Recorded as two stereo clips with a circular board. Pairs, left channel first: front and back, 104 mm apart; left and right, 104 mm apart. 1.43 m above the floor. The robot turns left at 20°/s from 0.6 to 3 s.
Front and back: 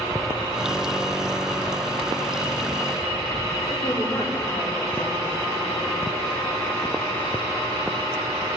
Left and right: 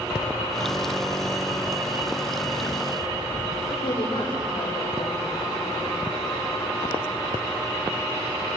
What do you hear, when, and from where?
3.7 s a woman speaking: 50° left, 4.5 m